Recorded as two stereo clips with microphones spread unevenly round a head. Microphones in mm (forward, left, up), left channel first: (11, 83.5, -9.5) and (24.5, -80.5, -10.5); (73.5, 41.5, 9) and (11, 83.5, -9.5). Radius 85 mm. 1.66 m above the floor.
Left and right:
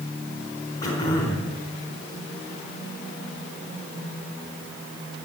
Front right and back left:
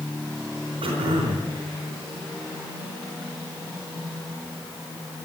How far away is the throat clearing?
About 4 m.